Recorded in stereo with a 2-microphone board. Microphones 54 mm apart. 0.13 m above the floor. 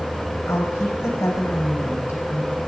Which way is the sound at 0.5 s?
70° left (ahead or behind).